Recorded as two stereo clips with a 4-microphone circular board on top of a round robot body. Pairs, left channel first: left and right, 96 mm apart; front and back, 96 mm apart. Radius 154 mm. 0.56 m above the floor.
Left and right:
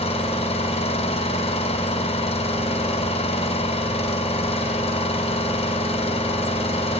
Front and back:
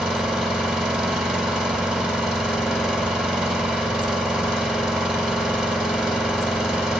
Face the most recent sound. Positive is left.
turn(degrees=95)